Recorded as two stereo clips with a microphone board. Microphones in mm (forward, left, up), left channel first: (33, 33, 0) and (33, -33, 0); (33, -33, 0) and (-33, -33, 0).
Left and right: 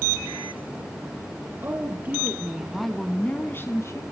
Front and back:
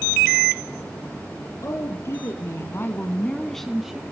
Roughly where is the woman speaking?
Ahead right.